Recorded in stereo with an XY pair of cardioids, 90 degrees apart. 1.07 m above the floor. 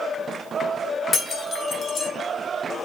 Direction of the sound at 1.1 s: 55° left.